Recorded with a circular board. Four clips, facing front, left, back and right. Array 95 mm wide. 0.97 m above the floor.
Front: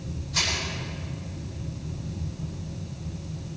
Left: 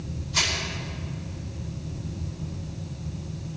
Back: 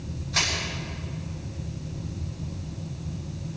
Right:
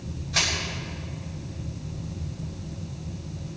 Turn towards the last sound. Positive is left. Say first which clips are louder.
# even, back 2 dB
turn(degrees=-115)